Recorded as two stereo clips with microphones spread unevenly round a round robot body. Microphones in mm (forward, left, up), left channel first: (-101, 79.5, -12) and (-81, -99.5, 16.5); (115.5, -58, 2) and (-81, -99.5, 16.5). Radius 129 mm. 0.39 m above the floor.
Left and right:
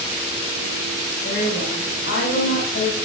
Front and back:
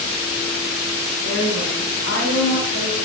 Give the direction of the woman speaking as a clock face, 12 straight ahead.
10 o'clock.